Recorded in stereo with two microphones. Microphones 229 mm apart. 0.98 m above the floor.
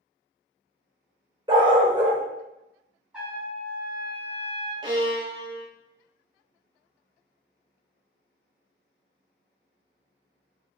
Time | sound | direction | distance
1.5 | a dog barking | 20° right (ahead or behind) | 0.8 m
3.1 | a trumpet | 5° right (ahead or behind) | 1.5 m
4.8 | a violin | 25° right (ahead or behind) | 1.0 m